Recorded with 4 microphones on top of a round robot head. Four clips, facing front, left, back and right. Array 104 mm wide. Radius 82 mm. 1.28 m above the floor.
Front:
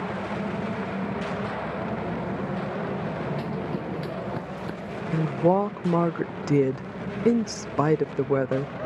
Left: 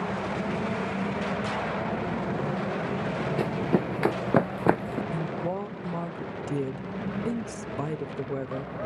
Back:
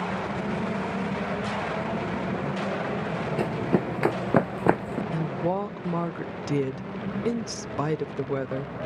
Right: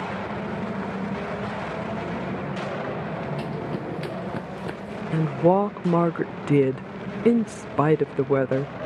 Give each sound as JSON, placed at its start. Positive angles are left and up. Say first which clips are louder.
{"t": 3.4, "sound": "running footsteps", "louder": "left 4 dB, back 5 dB", "azimuth_deg": 140}
{"t": 5.1, "sound": "a woman speaking", "louder": "right 11 dB, front 7 dB", "azimuth_deg": -60}